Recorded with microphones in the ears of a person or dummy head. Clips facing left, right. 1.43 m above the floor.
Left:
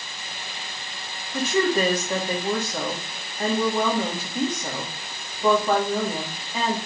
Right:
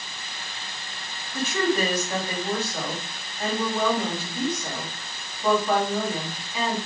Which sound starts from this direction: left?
A woman speaking, at 1.3 s.